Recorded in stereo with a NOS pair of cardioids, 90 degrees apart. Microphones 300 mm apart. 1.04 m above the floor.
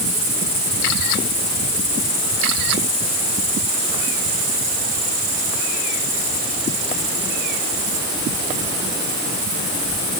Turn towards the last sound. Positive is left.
No sound to turn to.